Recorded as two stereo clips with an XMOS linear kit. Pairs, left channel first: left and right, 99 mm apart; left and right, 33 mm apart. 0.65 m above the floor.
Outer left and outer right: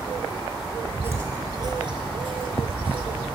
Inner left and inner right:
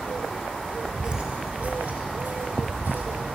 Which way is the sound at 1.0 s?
25° right (ahead or behind).